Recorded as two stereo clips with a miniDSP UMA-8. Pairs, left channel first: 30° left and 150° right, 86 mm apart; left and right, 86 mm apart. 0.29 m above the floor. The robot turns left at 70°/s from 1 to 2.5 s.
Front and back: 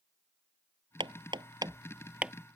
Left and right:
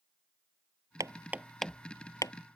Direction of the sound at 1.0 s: 140° right.